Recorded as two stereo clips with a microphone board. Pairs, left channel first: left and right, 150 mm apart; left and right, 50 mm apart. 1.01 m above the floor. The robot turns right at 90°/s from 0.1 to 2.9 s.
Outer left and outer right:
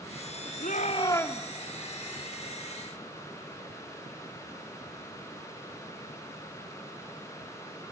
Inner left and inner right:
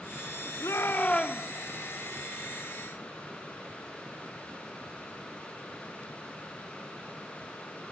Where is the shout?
110° left, 2 m; by 1.5 s 175° right, 2 m.